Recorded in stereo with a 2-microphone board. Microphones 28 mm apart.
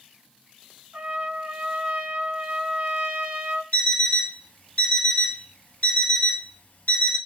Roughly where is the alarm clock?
Left.